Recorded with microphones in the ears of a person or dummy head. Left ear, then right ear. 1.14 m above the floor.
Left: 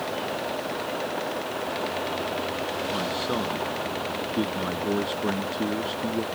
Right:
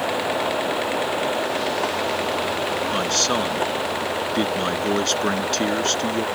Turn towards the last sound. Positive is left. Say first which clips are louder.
# right 8 dB
turn(degrees=-70)  # may be behind; listen again after turning